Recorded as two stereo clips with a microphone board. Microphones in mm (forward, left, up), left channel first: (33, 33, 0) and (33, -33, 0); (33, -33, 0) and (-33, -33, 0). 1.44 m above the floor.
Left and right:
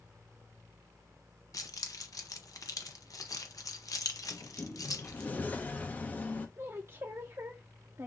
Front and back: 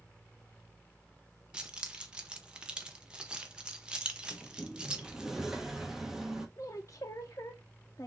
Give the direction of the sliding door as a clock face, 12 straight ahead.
8 o'clock.